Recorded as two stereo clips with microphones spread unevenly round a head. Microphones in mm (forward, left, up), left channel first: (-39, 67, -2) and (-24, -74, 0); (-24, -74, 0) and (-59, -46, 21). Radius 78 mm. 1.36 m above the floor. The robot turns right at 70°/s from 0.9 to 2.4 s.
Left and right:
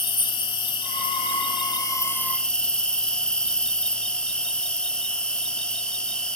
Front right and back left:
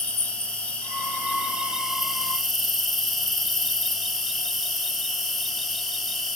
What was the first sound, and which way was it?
An insect, 70° left.